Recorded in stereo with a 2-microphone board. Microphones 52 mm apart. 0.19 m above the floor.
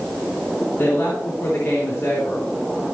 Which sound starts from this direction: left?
A woman speaking, at 0.8 s.